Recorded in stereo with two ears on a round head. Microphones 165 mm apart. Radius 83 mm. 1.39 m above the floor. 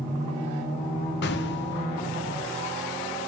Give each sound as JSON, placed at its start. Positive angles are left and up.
{"t": 1.2, "sound": "an explosion", "side_deg": 65, "distance_m": 0.7}